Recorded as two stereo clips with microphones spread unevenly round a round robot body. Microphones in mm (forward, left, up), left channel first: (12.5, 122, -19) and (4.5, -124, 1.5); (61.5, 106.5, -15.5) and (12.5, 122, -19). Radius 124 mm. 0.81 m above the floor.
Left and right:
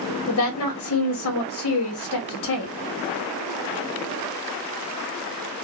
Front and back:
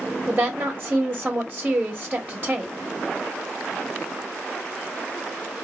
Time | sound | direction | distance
0.3 | a woman speaking | 110° left | 0.8 m